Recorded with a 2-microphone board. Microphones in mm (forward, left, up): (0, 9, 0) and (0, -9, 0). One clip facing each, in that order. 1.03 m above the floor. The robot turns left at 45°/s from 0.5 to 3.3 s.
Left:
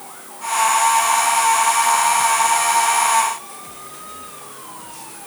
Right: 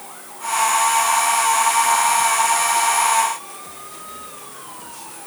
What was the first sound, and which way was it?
Only background noise.